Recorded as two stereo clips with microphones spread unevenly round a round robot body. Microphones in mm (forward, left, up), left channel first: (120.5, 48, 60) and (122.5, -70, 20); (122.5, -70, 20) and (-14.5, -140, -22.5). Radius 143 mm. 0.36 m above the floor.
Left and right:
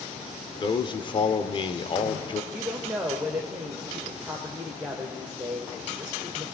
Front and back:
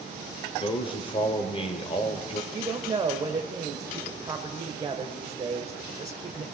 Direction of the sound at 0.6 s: 70° left.